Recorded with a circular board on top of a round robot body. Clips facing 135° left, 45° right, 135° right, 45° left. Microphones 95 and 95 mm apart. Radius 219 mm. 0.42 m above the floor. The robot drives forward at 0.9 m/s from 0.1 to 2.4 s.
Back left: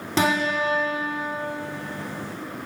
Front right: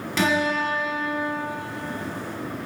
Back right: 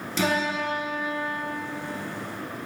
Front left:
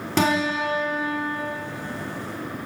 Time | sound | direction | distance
0.2 | a guitar | 75° left | 6 m